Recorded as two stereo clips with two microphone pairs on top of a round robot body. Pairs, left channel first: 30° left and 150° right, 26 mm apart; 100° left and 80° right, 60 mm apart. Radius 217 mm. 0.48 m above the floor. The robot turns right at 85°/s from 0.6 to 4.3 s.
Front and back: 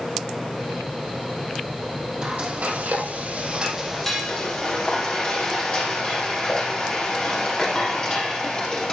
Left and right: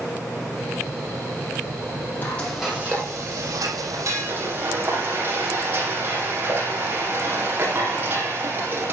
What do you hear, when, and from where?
2.2 s frying: 155° left, 7.5 m; by 8.9 s 25° right, 7.5 m